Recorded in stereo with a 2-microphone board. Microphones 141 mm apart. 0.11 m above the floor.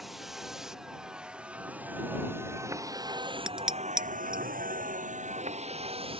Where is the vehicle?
Centre (ahead or behind); by 6.2 s 40° right (ahead or behind).